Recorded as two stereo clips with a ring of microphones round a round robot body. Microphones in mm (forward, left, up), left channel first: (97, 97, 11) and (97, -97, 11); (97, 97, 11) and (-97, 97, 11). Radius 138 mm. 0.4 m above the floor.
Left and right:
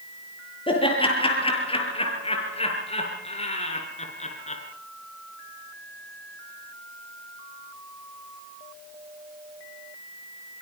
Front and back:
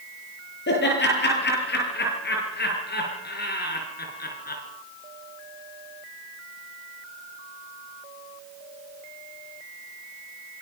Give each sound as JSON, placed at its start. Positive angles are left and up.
{"t": 0.7, "sound": "laughter", "azimuth_deg": 25, "distance_m": 8.5}